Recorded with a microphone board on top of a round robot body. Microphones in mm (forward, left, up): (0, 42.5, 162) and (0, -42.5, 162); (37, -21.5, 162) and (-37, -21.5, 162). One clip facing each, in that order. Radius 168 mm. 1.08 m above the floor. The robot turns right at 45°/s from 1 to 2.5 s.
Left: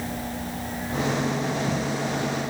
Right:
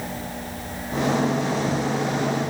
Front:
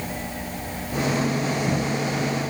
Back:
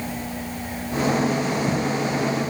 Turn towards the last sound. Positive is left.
No sound to turn to.